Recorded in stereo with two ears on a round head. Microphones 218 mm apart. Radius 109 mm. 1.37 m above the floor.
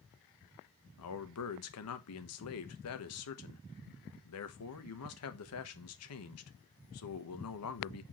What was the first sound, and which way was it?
A man speaking, 65° left (ahead or behind).